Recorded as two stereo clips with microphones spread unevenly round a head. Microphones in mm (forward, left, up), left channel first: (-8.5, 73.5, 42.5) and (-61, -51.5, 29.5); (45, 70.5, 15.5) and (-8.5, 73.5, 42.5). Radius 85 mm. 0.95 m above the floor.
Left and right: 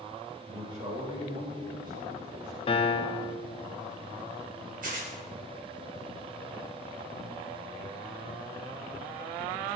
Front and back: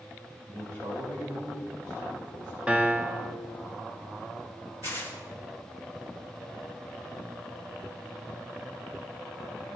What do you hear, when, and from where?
0.5 s a man speaking: 170° right, 3.5 m
2.7 s a piano: 85° left, 1.0 m
4.8 s tearing paper: 120° right, 4 m